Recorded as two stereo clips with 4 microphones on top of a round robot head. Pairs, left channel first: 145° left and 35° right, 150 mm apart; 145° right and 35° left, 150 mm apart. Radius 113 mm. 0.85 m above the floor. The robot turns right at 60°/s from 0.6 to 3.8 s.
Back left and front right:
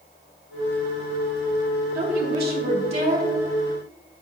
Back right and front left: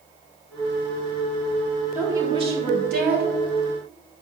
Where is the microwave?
No microwave in this recording.